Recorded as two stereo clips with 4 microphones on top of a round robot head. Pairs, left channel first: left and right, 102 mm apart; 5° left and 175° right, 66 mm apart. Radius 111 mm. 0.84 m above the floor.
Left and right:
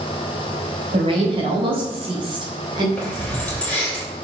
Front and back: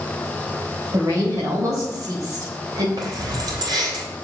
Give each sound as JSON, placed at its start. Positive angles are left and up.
{"t": 0.9, "sound": "a woman speaking", "azimuth_deg": -125, "distance_m": 4.0}
{"t": 3.0, "sound": "keys jangling", "azimuth_deg": 170, "distance_m": 3.0}